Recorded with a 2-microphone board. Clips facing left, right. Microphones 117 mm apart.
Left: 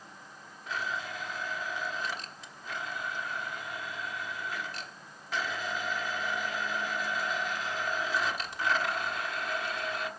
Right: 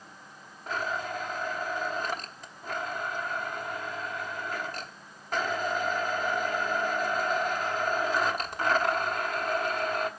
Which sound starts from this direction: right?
A blender, at 0.7 s.